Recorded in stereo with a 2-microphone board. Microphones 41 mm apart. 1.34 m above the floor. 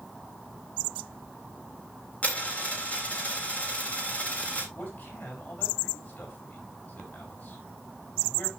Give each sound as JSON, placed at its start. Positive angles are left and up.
{"t": 2.2, "sound": "a dropped coin", "side_deg": 35, "distance_m": 3.5}
{"t": 4.8, "sound": "a man speaking", "side_deg": 55, "distance_m": 5.5}